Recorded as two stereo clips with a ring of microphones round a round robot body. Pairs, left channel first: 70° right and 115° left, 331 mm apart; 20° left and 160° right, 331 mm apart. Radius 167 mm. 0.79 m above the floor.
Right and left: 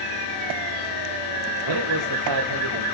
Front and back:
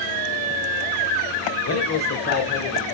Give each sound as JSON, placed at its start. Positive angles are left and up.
{"t": 1.6, "sound": "a man speaking", "azimuth_deg": 75, "distance_m": 2.5}